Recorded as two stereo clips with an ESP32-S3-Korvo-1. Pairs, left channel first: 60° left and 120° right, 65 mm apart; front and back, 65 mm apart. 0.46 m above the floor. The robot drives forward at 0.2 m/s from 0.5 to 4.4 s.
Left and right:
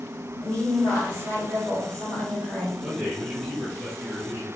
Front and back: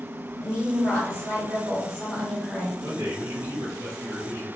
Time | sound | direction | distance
0.4 | a woman speaking | 40° left | 1.9 m
2.8 | a man speaking | 170° left | 0.8 m